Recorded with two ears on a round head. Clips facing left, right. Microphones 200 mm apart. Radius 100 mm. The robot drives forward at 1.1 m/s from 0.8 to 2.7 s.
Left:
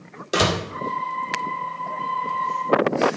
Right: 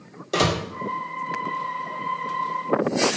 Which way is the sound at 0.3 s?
10° left (ahead or behind).